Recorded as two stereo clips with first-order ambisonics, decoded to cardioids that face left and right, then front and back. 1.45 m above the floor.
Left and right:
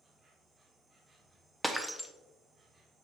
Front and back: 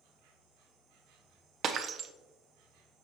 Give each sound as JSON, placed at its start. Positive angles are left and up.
{"t": 0.0, "sound": "an insect", "azimuth_deg": -165, "distance_m": 1.1}
{"t": 1.6, "sound": "breaking glass", "azimuth_deg": -175, "distance_m": 0.5}